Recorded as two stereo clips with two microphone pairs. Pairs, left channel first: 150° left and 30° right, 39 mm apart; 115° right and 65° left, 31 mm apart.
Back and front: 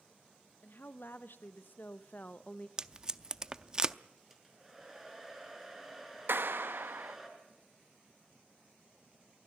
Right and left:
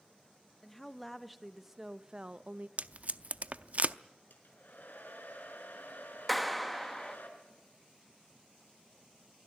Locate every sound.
0.6 s a woman speaking: 165° left, 1.5 m; by 2.7 s 90° left, 0.7 m
2.8 s tape being pulled: 35° left, 0.6 m
4.3 s a hair dryer: 110° right, 5 m
6.3 s a clap: 30° right, 0.8 m